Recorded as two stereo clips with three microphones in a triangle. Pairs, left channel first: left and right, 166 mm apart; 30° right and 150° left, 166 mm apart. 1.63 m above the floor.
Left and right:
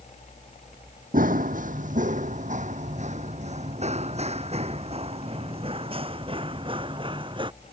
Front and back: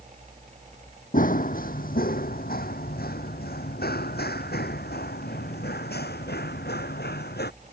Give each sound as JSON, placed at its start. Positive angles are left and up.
{"t": 1.1, "sound": "running footsteps", "azimuth_deg": -60}